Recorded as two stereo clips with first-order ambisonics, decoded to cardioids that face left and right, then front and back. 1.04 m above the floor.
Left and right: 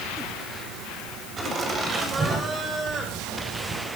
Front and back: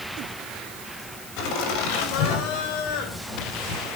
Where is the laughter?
20° right, 7 m; by 3.9 s 15° right, 4.5 m.